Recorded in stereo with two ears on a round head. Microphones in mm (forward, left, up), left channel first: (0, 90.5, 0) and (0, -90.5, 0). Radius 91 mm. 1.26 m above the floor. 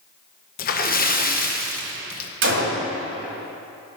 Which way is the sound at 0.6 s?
45° left (ahead or behind).